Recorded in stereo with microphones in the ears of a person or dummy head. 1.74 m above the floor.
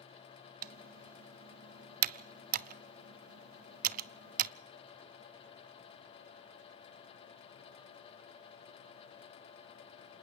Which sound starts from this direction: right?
Typing on a keyboard, at 0.6 s.